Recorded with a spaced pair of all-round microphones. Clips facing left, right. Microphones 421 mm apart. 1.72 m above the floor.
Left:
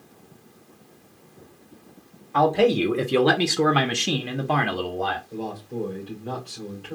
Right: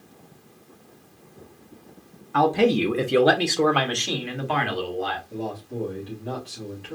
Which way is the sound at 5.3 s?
35° right (ahead or behind).